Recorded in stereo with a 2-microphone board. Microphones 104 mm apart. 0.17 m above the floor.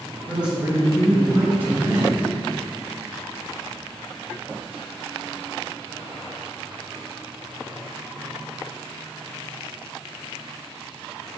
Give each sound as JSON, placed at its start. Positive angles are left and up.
{"t": 0.3, "sound": "a man speaking", "side_deg": -10, "distance_m": 1.7}